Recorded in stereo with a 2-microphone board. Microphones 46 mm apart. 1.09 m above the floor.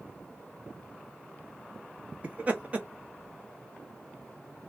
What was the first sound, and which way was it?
Laughter, 30° right (ahead or behind).